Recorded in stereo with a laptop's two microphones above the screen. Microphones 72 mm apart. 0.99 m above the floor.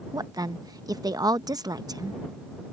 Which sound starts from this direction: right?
A woman speaking, at 0.1 s.